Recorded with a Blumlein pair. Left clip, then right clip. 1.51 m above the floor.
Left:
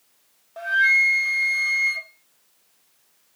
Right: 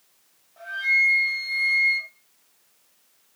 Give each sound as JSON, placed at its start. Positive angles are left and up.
{"t": 0.6, "sound": "a flute", "azimuth_deg": 55, "distance_m": 0.5}